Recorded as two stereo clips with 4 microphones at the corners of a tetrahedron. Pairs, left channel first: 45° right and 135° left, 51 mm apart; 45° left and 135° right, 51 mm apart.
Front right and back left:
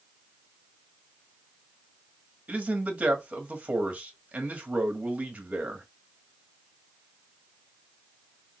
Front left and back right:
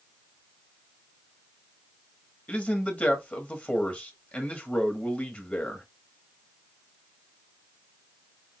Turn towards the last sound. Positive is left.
turn(degrees=90)